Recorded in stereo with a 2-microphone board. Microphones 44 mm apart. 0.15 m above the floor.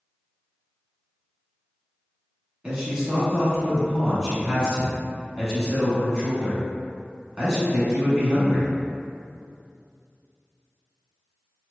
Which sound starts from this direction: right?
A man speaking, at 2.6 s.